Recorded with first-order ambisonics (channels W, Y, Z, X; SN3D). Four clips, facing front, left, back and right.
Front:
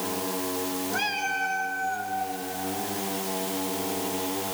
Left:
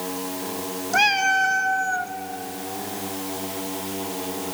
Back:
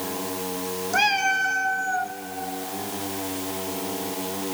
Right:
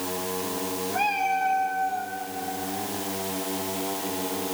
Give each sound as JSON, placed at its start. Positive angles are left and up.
{"t": 0.9, "sound": "a cat meowing", "azimuth_deg": 115, "distance_m": 0.8}